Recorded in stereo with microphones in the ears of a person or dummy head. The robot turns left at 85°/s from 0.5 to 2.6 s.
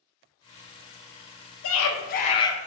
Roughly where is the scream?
Left.